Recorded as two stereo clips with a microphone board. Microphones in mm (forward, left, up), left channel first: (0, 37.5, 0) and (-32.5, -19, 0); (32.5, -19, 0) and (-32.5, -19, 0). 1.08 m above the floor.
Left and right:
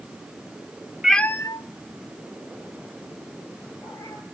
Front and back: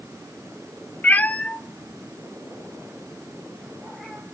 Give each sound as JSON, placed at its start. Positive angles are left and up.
{"t": 1.0, "sound": "a cat meowing", "azimuth_deg": -40, "distance_m": 0.5}